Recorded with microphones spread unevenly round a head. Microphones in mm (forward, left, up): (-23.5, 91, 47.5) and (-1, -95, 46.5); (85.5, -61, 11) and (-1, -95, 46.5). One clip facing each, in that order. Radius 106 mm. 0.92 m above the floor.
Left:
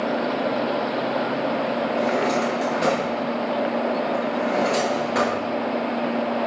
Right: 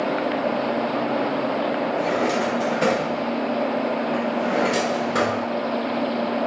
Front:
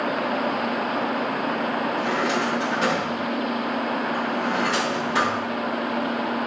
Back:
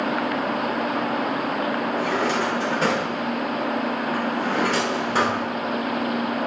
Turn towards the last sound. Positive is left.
turn(degrees=-120)